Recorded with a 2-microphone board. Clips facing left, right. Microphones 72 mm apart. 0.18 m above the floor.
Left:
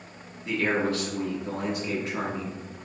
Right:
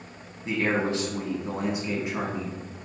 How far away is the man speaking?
About 1.1 m.